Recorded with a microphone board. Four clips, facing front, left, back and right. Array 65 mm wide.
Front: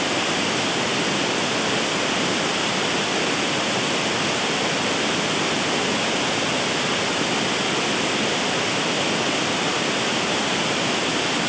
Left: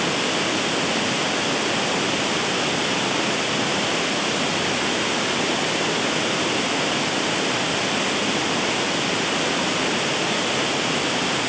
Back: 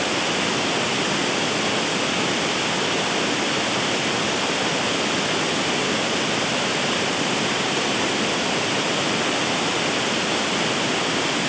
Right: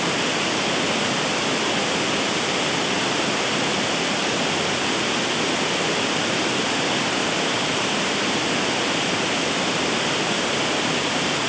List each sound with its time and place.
Only background noise.